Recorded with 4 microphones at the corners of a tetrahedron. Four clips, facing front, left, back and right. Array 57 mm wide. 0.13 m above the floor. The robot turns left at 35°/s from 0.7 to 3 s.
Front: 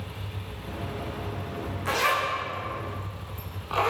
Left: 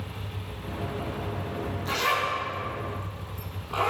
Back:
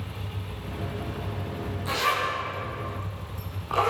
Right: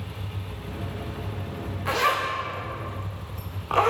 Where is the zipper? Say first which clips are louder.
Right 3 dB, front 1 dB; 55° right, 8.5 m; by 3.9 s 100° right, 8.5 m.